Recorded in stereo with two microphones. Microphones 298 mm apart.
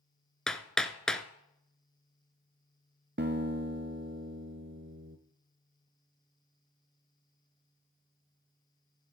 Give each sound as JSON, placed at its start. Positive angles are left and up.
{"t": 0.5, "sound": "hammering", "side_deg": 0, "distance_m": 0.8}
{"t": 3.2, "sound": "a guitar", "side_deg": -35, "distance_m": 0.9}